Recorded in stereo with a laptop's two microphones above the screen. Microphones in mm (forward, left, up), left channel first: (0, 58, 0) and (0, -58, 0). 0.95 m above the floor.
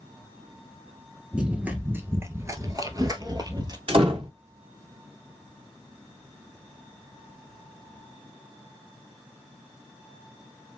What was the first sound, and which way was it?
Running footsteps, 10° right (ahead or behind).